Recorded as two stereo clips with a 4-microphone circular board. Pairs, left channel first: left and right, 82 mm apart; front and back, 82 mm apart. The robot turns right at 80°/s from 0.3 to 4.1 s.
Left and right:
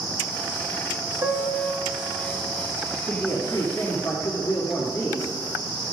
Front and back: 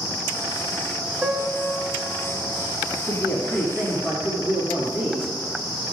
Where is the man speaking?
40° left, 2 m; by 5.4 s 125° left, 2 m.